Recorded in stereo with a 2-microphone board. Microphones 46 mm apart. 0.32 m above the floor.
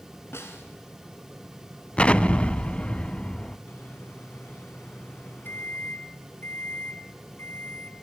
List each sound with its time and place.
0.3 s a snare drum: 75° left (ahead or behind), 3 m
2.0 s an explosion: 30° left (ahead or behind), 0.5 m
3.7 s a microwave: 60° left (ahead or behind), 2.5 m